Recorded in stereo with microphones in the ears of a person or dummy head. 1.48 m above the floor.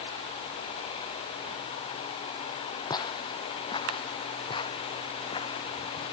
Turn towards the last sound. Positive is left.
turn(degrees=30)  # may be behind; listen again after turning